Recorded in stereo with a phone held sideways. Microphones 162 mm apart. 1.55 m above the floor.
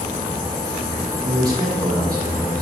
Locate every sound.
1.2 s a man speaking: 25° right (ahead or behind), 2 m